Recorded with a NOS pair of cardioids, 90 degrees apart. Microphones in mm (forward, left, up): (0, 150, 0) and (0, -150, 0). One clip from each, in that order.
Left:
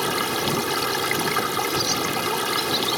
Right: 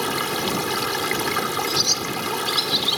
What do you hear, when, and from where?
0.0 s running water: 5° left
1.7 s a bird: 55° right